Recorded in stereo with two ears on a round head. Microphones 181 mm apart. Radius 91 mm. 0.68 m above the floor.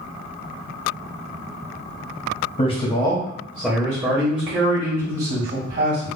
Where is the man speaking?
30° left (ahead or behind), 0.9 m; by 6.1 s 50° right (ahead or behind), 1.7 m.